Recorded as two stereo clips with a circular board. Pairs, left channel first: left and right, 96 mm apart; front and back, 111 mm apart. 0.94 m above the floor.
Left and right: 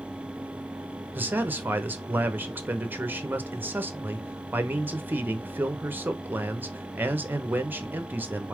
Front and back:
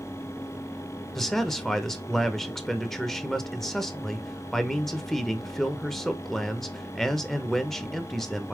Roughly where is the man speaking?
Right.